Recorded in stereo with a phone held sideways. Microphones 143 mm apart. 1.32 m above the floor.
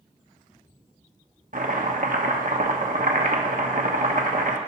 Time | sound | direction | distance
1.5 | chopping | 75° right (ahead or behind) | 0.9 m